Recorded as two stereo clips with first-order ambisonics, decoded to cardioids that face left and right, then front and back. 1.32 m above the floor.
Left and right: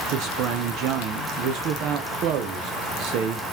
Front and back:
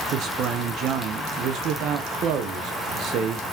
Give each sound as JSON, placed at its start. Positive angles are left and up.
{"t": 0.1, "sound": "a man speaking", "azimuth_deg": -130, "distance_m": 0.6}